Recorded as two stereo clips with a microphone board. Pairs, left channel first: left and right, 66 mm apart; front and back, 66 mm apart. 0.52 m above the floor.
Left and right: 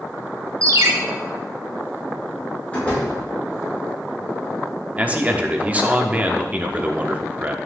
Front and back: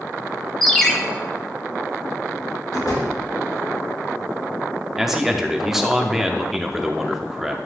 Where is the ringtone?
85° right, 1.1 m.